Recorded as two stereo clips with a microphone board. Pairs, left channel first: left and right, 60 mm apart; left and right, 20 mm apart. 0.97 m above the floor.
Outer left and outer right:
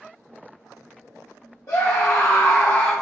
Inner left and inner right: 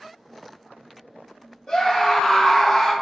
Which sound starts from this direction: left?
A scream, at 1.7 s.